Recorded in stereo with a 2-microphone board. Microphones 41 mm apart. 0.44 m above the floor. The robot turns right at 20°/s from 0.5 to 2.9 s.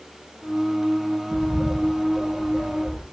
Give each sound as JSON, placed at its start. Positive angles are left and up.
{"t": 1.3, "sound": "a bird", "side_deg": 15, "distance_m": 2.5}